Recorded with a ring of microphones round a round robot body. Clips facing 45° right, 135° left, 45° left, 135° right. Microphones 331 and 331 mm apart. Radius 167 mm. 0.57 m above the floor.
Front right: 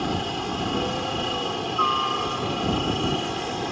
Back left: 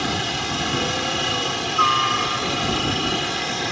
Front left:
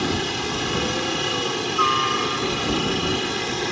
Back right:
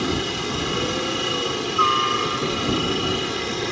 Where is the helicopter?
130° left.